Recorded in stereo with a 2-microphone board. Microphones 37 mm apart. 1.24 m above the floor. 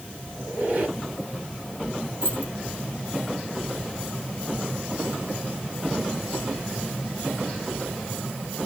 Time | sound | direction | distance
0.3 | a squeak | 45° right (ahead or behind) | 1.4 m
2.2 | keys jangling | 75° right (ahead or behind) | 3 m